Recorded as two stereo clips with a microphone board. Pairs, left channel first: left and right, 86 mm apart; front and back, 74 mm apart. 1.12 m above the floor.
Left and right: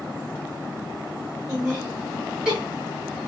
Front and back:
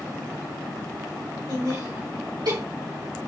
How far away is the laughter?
About 3 m.